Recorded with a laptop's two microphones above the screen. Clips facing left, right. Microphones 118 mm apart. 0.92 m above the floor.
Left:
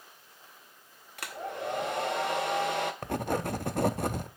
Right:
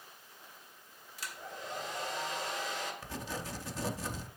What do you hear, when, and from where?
1.2 s a hair dryer: 65° left (ahead or behind), 0.7 m
3.0 s writing: 60° left (ahead or behind), 0.5 m